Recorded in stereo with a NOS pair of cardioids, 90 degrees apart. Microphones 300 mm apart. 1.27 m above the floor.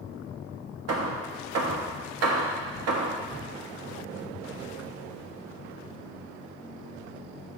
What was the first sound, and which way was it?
Hammering, 60° right.